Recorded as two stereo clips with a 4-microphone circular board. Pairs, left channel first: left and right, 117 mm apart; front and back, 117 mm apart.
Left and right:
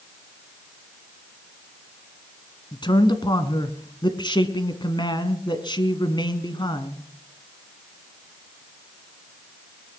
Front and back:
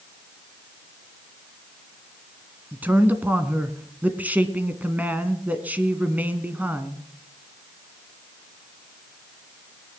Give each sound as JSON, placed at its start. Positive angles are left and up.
{"t": 2.7, "sound": "a man speaking", "azimuth_deg": 110, "distance_m": 1.5}